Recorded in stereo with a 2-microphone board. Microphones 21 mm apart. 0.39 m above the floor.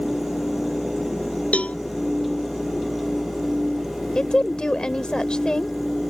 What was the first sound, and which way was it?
A cowbell, 90° left.